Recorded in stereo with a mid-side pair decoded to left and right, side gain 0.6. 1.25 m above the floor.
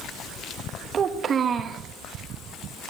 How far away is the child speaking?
About 1.0 m.